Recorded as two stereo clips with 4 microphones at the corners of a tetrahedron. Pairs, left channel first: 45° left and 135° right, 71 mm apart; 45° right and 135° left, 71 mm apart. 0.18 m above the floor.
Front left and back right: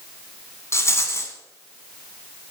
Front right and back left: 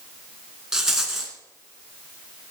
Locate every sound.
0.7 s a rattle: 55° left, 2 m